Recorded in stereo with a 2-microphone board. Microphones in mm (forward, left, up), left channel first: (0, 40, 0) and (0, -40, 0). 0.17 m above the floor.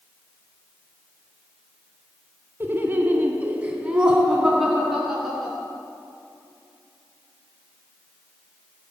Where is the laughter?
25° right (ahead or behind), 2.0 m; by 5.5 s 5° left (ahead or behind), 3 m.